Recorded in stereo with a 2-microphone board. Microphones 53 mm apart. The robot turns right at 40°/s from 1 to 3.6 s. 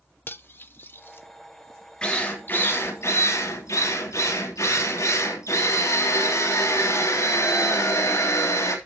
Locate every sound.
0.3 s cutlery clinking: 40° left (ahead or behind), 1.0 m; by 1.2 s 45° left (ahead or behind), 1.0 m
2.0 s a drill: 20° left, 3.5 m; by 8.8 s 80° left, 3.5 m